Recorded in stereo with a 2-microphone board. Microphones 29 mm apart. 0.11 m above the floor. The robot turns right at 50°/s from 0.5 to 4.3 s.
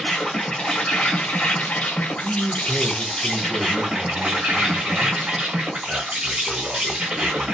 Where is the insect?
35° left, 1.7 m; by 7.5 s 135° right, 1.7 m.